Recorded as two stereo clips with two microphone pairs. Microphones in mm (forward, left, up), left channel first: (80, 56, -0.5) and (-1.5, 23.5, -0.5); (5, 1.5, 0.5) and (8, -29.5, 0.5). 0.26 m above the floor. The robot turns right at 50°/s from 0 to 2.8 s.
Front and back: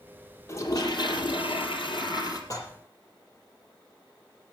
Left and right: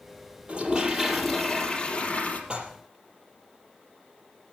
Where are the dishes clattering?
25° right, 6 m; by 2.7 s 15° right, 6 m.